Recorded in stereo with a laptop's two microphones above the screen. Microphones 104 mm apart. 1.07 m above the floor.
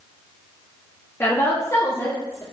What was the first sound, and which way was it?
A woman speaking, 25° left (ahead or behind).